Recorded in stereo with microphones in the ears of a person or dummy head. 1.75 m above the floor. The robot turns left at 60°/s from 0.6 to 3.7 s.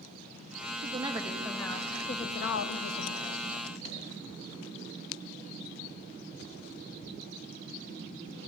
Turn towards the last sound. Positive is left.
turn(degrees=50)